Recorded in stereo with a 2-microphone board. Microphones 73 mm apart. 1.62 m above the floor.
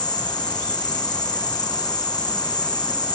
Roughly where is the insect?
Left.